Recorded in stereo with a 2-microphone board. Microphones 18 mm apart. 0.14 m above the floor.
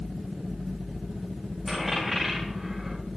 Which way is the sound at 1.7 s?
5° right (ahead or behind).